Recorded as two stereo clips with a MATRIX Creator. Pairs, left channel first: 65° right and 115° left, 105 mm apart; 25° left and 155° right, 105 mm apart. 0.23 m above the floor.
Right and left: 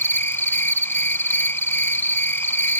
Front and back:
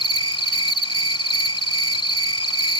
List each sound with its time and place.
0.0 s an insect: 5° right